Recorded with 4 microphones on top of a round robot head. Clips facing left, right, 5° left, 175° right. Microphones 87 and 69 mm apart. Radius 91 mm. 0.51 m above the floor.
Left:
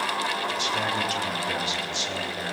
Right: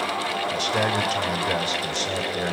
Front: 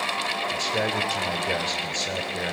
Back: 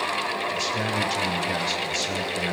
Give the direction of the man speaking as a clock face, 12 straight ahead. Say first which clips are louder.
Right 4 dB, even; 1 o'clock.